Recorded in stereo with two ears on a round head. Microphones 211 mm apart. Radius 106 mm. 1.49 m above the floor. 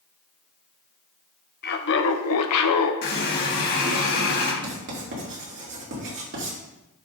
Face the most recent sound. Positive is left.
turn(degrees=-50)  # may be behind; listen again after turning